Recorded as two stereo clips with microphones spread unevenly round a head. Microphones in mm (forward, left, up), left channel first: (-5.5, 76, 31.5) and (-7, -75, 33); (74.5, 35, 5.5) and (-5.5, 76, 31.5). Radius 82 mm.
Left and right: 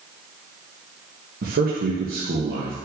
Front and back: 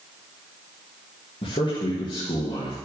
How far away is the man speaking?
About 1.6 m.